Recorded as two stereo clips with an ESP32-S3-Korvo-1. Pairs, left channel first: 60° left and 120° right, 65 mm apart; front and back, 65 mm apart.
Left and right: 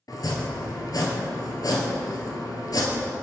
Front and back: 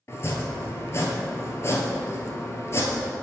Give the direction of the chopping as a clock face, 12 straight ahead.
10 o'clock.